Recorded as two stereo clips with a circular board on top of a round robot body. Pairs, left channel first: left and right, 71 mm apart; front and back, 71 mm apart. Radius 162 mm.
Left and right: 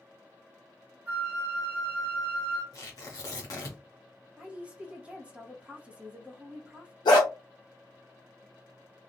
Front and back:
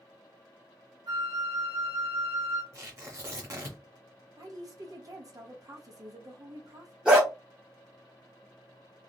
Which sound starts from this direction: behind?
A woman speaking, at 4.4 s.